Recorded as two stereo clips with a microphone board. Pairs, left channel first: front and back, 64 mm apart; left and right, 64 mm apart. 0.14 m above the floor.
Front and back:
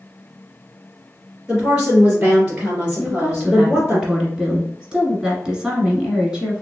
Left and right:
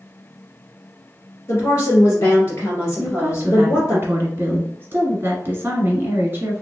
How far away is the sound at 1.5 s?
About 2.0 m.